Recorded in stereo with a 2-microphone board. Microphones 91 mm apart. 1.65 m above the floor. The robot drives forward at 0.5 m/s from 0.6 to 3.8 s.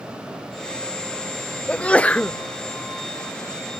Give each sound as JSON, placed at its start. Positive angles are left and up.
{"t": 1.7, "sound": "a sneeze", "side_deg": 10}